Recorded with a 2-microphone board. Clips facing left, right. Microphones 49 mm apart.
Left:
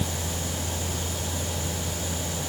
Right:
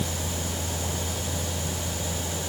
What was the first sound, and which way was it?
Only background noise.